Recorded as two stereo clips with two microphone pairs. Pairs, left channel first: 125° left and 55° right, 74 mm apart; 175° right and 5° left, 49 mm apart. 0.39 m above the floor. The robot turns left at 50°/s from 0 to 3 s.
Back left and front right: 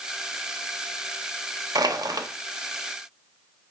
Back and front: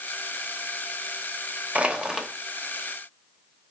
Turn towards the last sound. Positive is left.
turn(degrees=-110)